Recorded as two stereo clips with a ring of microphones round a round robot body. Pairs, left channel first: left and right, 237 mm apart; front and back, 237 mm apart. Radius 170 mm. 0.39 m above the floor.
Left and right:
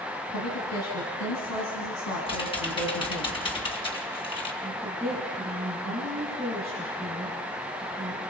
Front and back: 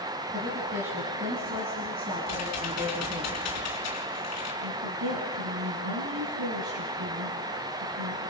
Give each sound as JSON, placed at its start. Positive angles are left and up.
{"t": 0.3, "sound": "a woman speaking", "azimuth_deg": 120, "distance_m": 3.0}
{"t": 2.3, "sound": "typing on a keyboard", "azimuth_deg": 20, "distance_m": 3.5}
{"t": 4.6, "sound": "a woman speaking", "azimuth_deg": 180, "distance_m": 4.5}